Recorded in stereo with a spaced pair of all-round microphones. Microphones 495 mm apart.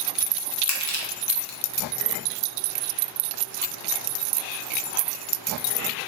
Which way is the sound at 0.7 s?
35° left (ahead or behind).